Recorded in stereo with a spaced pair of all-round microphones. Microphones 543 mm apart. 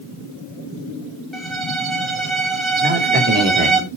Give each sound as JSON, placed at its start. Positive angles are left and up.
{"t": 1.3, "sound": "a violin", "side_deg": -60, "distance_m": 1.9}
{"t": 2.8, "sound": "a man speaking", "side_deg": -15, "distance_m": 3.0}